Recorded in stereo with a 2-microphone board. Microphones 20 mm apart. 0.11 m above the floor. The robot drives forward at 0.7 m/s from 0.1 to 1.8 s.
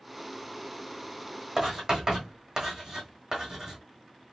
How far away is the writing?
About 2.5 m.